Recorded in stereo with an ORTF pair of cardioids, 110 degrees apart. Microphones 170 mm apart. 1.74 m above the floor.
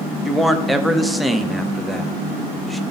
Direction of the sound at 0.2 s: Straight ahead.